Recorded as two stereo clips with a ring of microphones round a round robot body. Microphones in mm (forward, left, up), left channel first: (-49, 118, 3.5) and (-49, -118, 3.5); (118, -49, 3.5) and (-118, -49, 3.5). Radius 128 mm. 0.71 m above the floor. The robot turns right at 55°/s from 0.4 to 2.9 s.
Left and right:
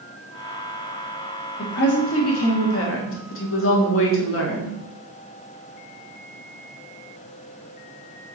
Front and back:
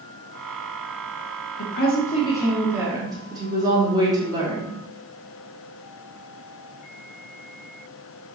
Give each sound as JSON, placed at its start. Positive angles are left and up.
{"t": 1.6, "sound": "a woman speaking", "azimuth_deg": 35, "distance_m": 1.4}